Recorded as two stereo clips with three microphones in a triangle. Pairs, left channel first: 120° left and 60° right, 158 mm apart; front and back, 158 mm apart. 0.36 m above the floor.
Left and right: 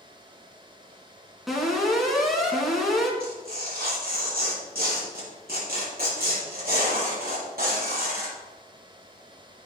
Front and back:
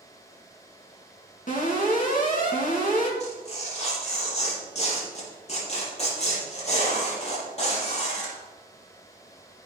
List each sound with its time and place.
1.5 s an alarm: 30° left, 3.5 m
3.2 s tearing paper: 45° right, 6 m